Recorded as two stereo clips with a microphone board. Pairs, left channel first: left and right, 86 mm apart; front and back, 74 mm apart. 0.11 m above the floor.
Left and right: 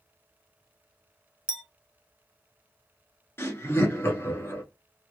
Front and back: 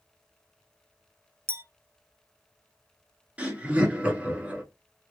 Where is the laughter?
125° left, 1.2 m.